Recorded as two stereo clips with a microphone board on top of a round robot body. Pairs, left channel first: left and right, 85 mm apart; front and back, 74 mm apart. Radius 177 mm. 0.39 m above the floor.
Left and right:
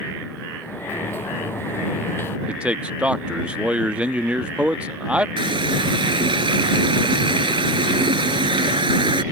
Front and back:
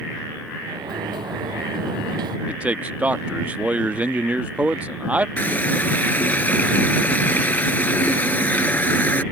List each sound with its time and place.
0.6 s a sliding door: 155° left
2.5 s a man speaking: 145° right
5.4 s a running tap: 65° right